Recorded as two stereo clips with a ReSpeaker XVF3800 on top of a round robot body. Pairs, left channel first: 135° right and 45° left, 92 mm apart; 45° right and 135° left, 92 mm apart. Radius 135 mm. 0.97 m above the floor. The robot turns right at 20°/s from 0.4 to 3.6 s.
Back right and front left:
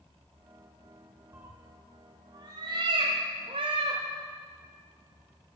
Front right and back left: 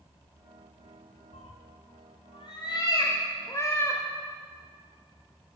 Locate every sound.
1.3 s a cat meowing: 25° right, 1.1 m; by 4.0 s 20° left, 1.1 m